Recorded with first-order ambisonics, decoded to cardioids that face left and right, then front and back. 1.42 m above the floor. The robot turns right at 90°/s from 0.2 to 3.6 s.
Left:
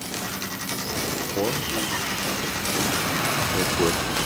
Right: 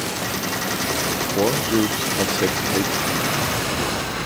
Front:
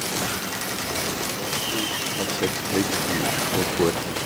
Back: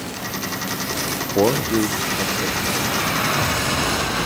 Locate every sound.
1.4 s a man speaking: 170° right; by 4.2 s 30° left